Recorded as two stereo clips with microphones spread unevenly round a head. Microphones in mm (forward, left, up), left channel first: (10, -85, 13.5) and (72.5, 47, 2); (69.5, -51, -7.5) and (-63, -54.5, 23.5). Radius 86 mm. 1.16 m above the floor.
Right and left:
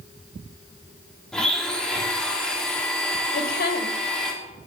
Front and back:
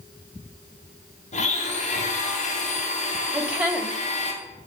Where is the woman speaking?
95° right, 3 m.